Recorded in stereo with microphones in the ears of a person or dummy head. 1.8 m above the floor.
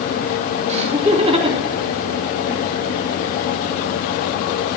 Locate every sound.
0.7 s laughter: 35° right (ahead or behind), 4 m; by 2.7 s 10° right (ahead or behind), 2.5 m